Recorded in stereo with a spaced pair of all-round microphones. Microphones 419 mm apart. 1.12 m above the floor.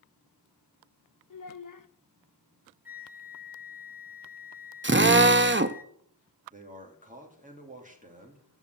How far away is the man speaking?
About 2.5 m.